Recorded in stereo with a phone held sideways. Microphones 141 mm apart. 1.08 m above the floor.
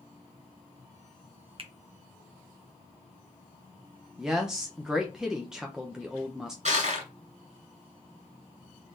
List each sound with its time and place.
1.6 s a finger snap: 40° right (ahead or behind), 0.6 m
4.2 s a woman speaking: 5° right (ahead or behind), 0.6 m
6.7 s crushing: 60° right (ahead or behind), 2 m